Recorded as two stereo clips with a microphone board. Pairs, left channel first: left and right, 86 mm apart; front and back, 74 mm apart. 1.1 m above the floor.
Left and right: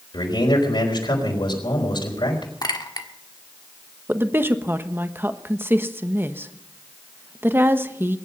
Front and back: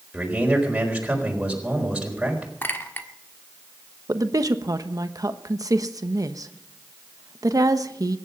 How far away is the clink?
About 1.6 m.